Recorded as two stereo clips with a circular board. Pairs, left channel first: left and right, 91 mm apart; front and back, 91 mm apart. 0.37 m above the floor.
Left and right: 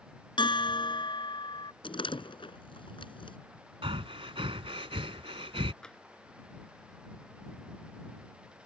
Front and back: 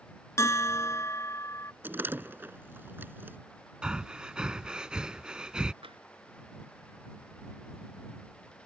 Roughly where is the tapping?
Behind.